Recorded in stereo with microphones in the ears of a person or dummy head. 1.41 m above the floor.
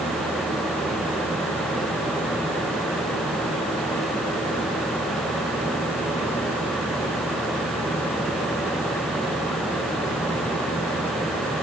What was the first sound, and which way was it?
Only background noise.